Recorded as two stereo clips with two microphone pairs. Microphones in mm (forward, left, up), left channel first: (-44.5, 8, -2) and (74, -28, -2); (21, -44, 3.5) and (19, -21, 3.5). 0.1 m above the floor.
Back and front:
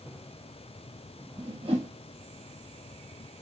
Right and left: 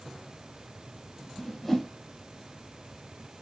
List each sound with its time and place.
1.4 s a whoosh: straight ahead, 1.4 m